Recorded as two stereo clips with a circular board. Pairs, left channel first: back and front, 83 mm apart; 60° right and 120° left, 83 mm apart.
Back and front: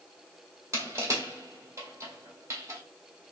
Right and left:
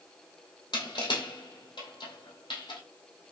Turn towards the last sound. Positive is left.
turn(degrees=-55)